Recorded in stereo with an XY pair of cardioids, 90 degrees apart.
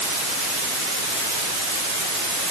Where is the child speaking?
No child speaking in this recording.